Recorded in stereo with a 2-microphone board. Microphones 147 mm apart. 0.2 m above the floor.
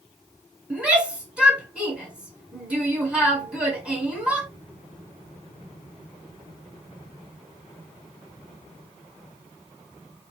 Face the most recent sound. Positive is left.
turn(degrees=-5)  # may be behind; listen again after turning